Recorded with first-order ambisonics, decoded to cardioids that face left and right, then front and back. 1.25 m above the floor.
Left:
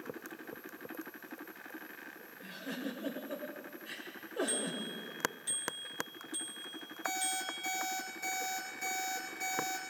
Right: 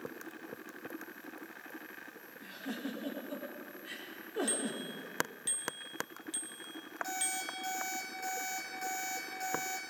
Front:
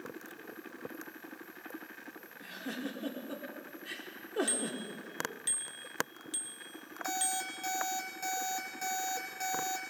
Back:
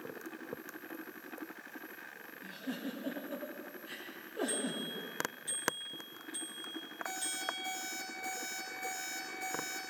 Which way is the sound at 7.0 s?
10° right.